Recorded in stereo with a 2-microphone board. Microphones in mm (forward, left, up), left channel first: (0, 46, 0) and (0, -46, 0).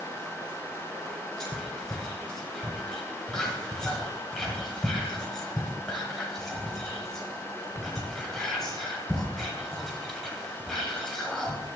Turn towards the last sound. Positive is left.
turn(degrees=5)  # may be behind; listen again after turning